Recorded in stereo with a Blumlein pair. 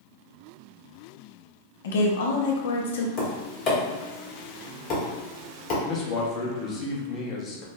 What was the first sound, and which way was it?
A woman speaking, 60° left.